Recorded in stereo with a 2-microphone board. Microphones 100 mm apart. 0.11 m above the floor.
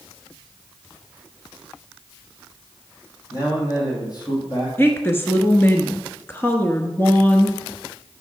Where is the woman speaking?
25° left (ahead or behind), 1.2 m.